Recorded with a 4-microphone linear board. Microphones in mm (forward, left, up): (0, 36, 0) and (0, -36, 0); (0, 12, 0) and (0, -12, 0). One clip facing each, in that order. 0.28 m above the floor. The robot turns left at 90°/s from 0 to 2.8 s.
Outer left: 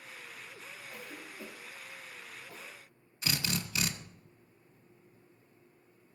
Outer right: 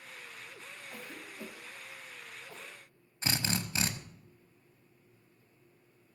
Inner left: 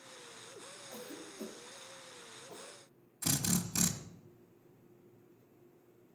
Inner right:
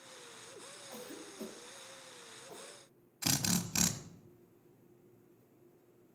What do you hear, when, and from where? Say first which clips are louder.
0.9 s a cough: outer right 1 dB, even; 10° right (ahead or behind), 1.4 m; by 2.7 s centre (ahead or behind), 1.4 m
3.2 s a drill: outer right 1 dB, inner right 1 dB; 35° right (ahead or behind), 1.0 m